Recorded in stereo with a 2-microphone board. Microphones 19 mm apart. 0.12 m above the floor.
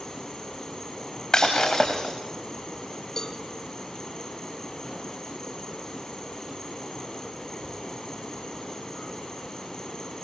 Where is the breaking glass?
30° left (ahead or behind), 4 m.